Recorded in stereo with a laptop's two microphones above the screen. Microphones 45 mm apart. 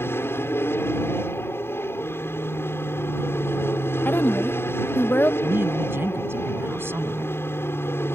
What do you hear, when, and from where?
0.0 s an aircraft: 65° left (ahead or behind)
4.0 s a woman speaking: 45° left (ahead or behind)
5.4 s a woman speaking: 60° right (ahead or behind)